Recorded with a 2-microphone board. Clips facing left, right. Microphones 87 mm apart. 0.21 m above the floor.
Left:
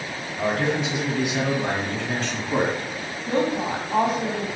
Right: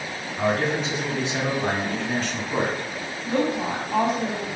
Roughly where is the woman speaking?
Centre.